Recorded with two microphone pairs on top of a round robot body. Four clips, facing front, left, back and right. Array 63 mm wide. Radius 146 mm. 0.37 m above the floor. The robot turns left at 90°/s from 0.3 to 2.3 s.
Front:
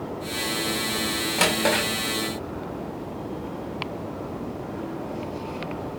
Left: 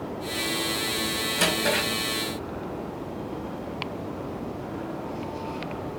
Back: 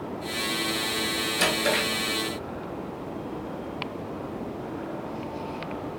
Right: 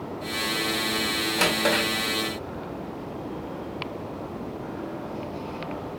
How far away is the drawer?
About 2.0 m.